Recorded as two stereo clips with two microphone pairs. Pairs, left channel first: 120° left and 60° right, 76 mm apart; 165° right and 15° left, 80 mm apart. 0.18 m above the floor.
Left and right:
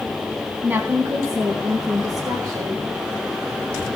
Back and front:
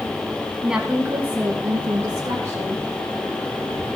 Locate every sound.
0.6 s a woman speaking: 55° right, 1.2 m; by 2.9 s 40° right, 3.5 m